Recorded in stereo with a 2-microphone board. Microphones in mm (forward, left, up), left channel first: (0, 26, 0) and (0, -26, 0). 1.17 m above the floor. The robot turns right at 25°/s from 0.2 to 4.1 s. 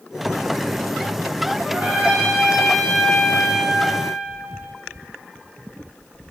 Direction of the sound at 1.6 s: 30° right.